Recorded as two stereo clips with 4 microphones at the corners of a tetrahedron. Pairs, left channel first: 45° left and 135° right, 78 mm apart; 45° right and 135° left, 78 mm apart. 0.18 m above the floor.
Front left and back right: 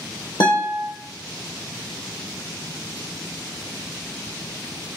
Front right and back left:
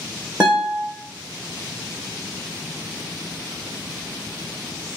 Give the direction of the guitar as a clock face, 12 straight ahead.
10 o'clock.